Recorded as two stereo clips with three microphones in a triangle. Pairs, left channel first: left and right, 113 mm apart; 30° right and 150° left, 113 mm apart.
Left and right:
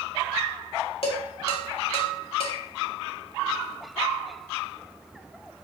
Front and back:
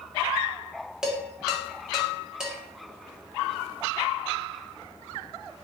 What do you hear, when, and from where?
1.0 s dishes clattering: 65° left, 2 m